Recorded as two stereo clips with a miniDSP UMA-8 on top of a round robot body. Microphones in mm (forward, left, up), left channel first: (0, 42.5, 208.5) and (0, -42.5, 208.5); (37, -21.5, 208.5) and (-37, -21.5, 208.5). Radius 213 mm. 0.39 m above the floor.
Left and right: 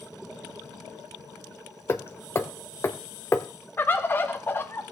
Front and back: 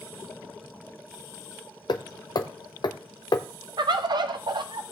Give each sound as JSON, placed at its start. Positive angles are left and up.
{"t": 1.9, "sound": "hammering", "azimuth_deg": 25, "distance_m": 0.6}
{"t": 3.8, "sound": "a bird", "azimuth_deg": 155, "distance_m": 0.6}